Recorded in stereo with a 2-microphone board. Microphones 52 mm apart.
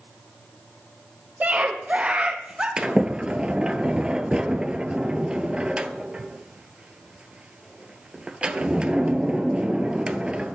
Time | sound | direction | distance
1.4 | a scream | 35° right (ahead or behind) | 4 m
2.8 | a sliding door | 20° right (ahead or behind) | 0.9 m